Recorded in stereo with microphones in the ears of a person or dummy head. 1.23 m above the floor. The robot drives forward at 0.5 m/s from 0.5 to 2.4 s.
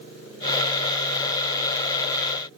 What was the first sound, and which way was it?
Only background noise.